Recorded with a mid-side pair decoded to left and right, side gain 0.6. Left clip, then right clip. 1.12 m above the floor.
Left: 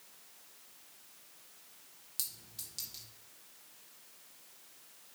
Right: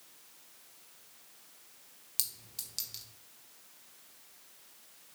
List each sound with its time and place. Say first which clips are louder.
2.2 s a clink: right 4 dB; 35° right, 1.0 m